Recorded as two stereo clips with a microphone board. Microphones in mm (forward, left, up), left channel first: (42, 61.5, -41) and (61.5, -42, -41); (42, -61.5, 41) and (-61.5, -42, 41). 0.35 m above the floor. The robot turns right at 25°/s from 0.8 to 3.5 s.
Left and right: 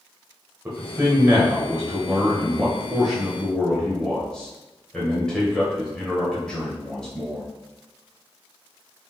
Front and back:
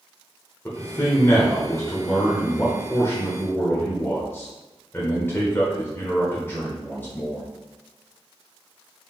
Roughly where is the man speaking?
Ahead right.